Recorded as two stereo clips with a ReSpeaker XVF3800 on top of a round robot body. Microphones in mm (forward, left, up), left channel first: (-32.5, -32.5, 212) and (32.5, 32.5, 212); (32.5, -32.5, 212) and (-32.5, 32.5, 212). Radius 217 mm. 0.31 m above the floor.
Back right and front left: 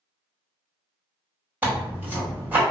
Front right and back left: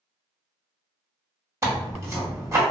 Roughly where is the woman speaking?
No woman speaking in this recording.